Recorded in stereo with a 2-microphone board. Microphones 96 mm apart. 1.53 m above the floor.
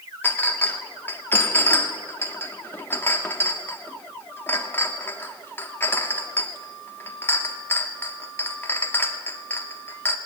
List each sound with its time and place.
0.2 s a clink: 20° left (ahead or behind), 1.7 m